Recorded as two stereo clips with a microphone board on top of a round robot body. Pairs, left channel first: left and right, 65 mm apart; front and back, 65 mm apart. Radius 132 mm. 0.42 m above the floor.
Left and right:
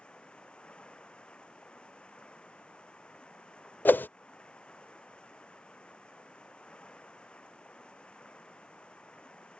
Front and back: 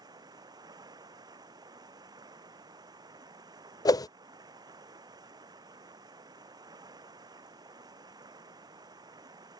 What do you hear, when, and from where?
0.0 s running water: 165° left
3.9 s a whoosh: 25° left